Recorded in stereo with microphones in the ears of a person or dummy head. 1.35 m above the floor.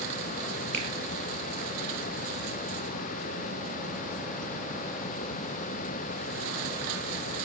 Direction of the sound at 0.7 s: 10° left (ahead or behind).